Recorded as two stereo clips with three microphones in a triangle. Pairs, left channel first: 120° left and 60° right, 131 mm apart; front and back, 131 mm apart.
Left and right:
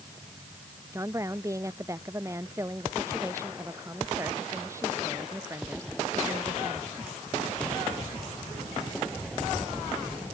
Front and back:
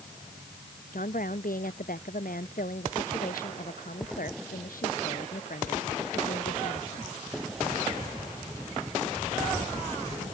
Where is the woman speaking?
10° left.